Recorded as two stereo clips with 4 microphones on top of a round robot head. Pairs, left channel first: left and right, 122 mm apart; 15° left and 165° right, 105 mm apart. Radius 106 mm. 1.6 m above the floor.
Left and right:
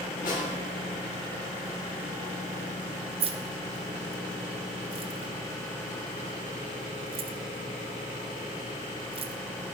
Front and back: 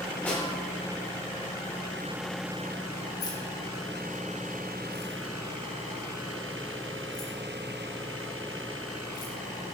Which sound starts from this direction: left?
A snare drum, at 0.2 s.